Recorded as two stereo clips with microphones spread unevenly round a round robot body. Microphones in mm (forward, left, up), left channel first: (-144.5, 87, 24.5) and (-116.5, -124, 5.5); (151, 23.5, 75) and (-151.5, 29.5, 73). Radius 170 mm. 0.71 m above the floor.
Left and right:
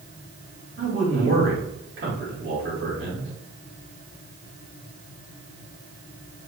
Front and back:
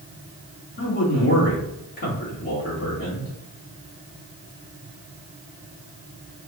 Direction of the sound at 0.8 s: 60° right.